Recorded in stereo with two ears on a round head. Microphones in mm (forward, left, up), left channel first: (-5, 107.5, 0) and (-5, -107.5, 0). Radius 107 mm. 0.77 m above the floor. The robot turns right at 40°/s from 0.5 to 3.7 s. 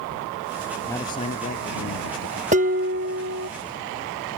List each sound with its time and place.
0.9 s a man speaking: 10° left; by 2.4 s 70° left
2.5 s dishes clattering: 145° right; by 3.5 s 110° right